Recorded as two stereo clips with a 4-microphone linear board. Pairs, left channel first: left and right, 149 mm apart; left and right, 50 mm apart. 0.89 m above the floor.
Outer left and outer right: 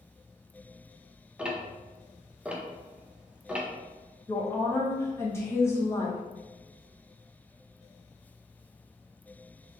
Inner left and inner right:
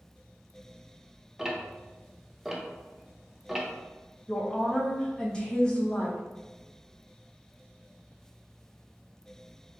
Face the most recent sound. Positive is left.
turn(degrees=15)  # may be behind; listen again after turning